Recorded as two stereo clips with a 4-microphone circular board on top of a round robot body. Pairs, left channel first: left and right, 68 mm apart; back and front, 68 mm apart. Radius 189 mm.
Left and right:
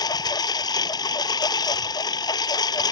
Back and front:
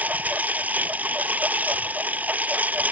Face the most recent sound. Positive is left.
turn(degrees=70)